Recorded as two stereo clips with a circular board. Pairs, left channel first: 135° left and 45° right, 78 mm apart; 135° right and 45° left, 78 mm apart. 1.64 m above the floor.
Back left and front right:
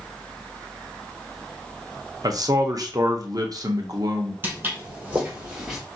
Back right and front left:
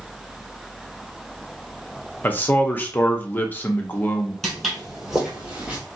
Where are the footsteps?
55° right, 1.8 m; by 5.8 s 25° left, 1.7 m.